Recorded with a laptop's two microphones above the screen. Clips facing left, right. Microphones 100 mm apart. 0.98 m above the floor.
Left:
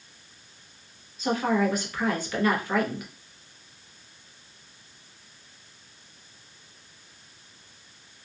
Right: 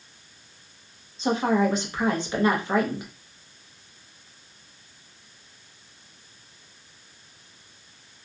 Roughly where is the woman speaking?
Right.